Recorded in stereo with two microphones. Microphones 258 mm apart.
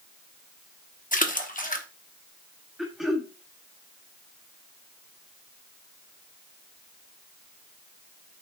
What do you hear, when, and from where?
1.1 s a splash: 30° left (ahead or behind), 0.9 m
2.8 s throat clearing: centre (ahead or behind), 1.5 m